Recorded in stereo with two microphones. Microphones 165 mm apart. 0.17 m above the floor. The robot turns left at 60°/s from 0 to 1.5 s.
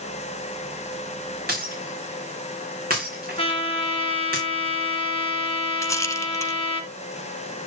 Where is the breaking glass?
65° right (ahead or behind), 4 m.